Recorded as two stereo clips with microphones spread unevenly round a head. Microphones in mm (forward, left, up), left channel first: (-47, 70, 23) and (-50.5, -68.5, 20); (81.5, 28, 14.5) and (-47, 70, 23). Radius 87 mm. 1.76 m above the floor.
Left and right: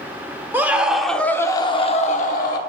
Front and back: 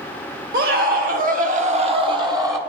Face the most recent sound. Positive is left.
turn(degrees=95)